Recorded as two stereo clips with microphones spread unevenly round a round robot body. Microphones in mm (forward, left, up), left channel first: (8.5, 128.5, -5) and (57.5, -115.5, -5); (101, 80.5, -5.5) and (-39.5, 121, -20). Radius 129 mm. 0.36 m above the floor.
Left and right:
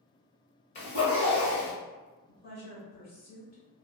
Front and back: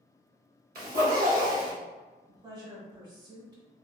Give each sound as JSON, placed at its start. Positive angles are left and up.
{"t": 0.8, "sound": "a zipper", "azimuth_deg": 165, "distance_m": 1.2}
{"t": 2.3, "sound": "a woman speaking", "azimuth_deg": 130, "distance_m": 1.2}